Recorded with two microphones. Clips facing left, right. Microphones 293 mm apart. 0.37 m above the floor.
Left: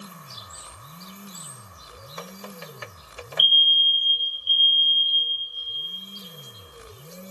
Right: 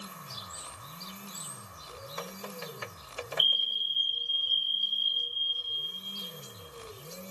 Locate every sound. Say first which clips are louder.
3.4 s a fire alarm: left 4 dB; 20° left (ahead or behind), 1.8 m